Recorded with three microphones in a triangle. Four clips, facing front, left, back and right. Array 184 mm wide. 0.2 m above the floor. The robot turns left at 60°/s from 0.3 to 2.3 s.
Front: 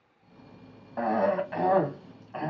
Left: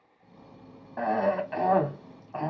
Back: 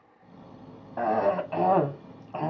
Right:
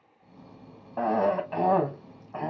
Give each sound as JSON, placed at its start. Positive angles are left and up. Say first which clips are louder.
{"t": 1.0, "sound": "a cough", "louder": "right 1 dB, back 1 dB", "azimuth_deg": -110, "distance_m": 1.0}